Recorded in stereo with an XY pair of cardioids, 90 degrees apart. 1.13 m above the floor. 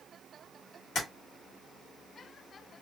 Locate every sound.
0.9 s tapping: 70° left, 1.4 m